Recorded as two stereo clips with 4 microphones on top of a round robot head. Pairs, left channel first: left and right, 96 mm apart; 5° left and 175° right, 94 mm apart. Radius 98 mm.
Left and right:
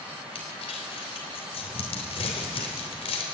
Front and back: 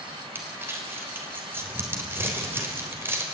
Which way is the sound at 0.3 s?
120° left.